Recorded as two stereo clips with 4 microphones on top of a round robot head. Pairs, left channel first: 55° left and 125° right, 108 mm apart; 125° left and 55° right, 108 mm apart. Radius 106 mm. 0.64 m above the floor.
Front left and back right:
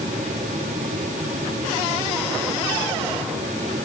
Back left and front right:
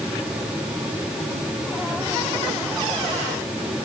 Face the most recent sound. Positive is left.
No sound to turn to.